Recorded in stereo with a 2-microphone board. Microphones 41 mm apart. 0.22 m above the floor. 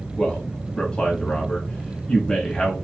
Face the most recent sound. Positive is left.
turn(degrees=25)  # may be behind; listen again after turning